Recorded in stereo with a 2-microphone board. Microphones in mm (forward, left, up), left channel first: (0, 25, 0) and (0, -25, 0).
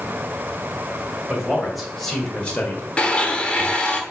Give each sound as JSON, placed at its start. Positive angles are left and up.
{"t": 1.3, "sound": "a man speaking", "side_deg": -5, "distance_m": 2.5}
{"t": 3.0, "sound": "a blender", "side_deg": 20, "distance_m": 0.9}